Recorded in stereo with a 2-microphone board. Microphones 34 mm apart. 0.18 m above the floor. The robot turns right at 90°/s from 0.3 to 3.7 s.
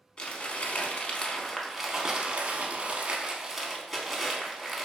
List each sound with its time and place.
0.2 s crumpling: 50° left, 0.5 m; by 4.8 s straight ahead, 0.5 m